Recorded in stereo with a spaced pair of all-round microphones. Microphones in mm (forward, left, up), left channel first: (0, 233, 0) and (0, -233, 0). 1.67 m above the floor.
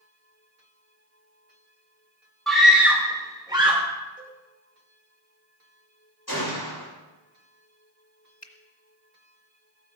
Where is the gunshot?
50° left (ahead or behind), 7.5 m.